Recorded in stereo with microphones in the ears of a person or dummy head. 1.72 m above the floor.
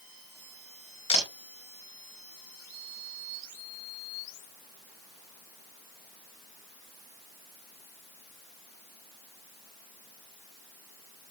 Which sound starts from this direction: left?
A camera shutter, at 1.1 s.